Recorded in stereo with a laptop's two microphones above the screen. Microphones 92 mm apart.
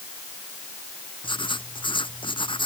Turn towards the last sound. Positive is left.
turn(degrees=65)  # may be behind; listen again after turning